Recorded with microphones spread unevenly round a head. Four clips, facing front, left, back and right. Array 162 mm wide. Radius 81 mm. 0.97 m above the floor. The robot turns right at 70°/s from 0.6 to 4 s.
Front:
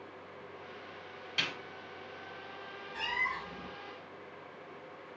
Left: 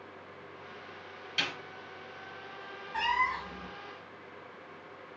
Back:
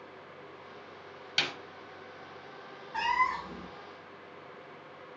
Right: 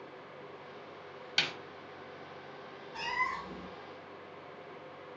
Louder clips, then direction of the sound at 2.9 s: Left 5 dB, back 9 dB; 140° left.